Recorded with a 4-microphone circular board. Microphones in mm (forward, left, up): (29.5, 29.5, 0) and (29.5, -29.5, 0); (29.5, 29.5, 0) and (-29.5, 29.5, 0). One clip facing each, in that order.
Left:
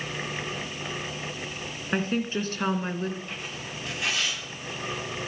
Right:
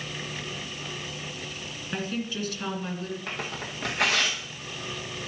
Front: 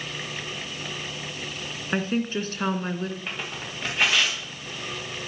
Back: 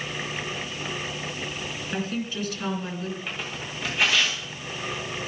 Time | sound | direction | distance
1.9 | a woman speaking | 45° left | 2.5 m
3.3 | tearing paper | 80° right | 5.5 m